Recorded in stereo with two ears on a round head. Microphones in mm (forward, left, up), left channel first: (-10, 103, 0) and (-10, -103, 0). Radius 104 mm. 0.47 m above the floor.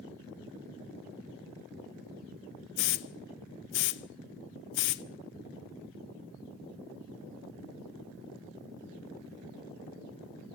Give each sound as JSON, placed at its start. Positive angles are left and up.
{"t": 2.8, "sound": "a hiss", "side_deg": 50, "distance_m": 0.6}